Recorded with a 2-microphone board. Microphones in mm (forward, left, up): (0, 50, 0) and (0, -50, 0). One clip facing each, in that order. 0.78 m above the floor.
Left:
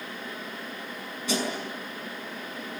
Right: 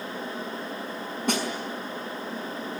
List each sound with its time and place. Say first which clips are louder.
1.3 s a snare drum: right 2 dB; 60° right (ahead or behind), 5.5 m